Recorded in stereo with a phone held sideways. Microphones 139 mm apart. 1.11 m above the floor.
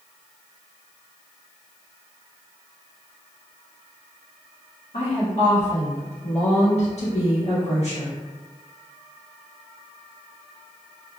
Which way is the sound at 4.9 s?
55° left (ahead or behind).